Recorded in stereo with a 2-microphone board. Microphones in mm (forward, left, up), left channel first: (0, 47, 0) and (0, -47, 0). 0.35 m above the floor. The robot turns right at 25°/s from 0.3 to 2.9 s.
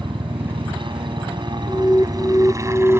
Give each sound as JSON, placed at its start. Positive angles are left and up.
{"t": 0.0, "sound": "a helicopter", "azimuth_deg": -95}
{"t": 1.7, "sound": "an alarm", "side_deg": 25}